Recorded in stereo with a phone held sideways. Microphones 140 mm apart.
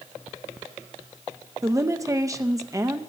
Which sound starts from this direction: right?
A woman speaking, at 1.6 s.